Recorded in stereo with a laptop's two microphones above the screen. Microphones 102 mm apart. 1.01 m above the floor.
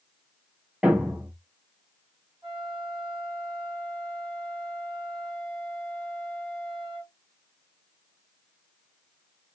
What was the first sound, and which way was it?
A thud, 15° right (ahead or behind).